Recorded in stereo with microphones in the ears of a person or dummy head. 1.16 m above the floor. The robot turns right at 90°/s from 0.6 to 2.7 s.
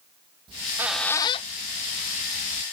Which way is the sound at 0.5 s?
35° right (ahead or behind).